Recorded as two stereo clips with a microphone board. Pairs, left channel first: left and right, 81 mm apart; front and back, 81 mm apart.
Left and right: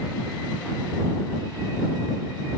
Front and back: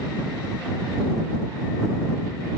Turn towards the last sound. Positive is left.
No sound to turn to.